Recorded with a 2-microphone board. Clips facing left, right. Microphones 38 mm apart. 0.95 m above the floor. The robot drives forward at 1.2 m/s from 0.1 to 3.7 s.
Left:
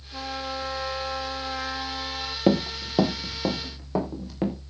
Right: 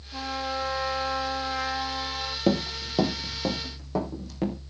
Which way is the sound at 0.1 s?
5° right (ahead or behind).